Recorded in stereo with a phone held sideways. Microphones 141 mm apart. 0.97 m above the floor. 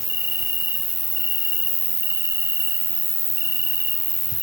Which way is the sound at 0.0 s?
20° right (ahead or behind).